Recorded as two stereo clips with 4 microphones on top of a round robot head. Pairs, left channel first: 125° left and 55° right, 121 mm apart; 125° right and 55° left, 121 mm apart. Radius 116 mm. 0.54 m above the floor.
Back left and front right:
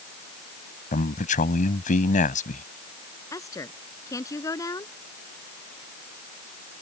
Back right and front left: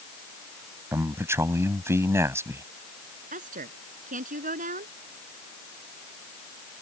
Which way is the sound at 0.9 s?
125° left.